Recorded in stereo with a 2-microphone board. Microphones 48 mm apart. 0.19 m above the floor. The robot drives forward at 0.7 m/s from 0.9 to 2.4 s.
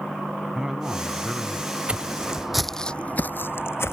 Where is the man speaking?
15° right (ahead or behind); by 1.8 s 10° right (ahead or behind).